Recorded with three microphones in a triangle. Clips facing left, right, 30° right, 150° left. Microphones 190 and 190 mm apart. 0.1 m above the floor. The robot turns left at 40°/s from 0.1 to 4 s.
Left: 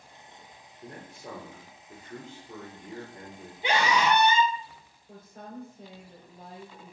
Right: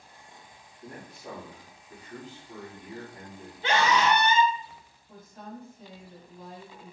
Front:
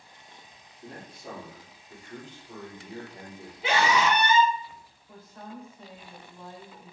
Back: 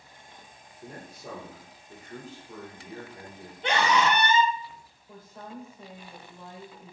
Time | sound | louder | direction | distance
0.8 | a man speaking | even, even | 135° left | 2 m
3.6 | a scream | right 1 dB, even | 45° left | 1.1 m
5.1 | a woman speaking | even, even | 80° left | 2.5 m